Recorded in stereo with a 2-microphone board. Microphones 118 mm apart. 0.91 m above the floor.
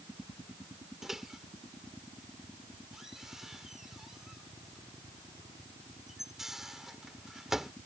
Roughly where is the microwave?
Centre.